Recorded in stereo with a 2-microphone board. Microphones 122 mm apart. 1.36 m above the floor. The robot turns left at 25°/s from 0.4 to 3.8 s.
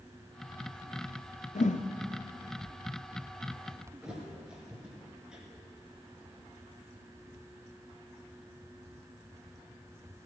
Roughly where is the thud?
Centre.